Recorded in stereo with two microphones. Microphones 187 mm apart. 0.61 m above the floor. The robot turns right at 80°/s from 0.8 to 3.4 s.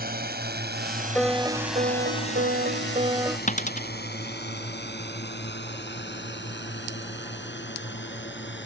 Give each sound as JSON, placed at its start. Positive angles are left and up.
{"t": 0.0, "sound": "a drone", "side_deg": -55}
{"t": 1.1, "sound": "a piano", "azimuth_deg": 175}
{"t": 3.5, "sound": "a dropped coin", "side_deg": 40}